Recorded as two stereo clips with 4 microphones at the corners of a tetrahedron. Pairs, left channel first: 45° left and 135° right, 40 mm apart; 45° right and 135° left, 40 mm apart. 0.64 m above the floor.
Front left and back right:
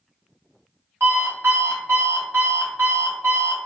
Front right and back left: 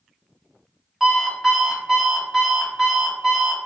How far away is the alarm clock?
About 1.5 m.